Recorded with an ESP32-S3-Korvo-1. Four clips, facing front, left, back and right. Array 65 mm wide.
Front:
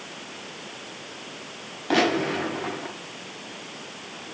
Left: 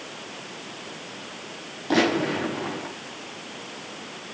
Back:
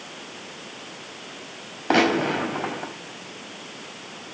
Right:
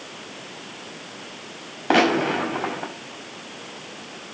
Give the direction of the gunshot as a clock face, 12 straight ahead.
4 o'clock.